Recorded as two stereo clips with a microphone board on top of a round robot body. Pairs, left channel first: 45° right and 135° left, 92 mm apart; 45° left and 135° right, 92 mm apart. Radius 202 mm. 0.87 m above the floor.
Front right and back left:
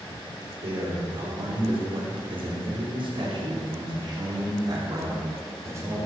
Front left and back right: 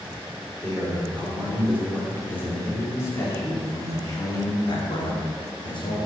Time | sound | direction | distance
0.6 | a man speaking | 130° left | 5 m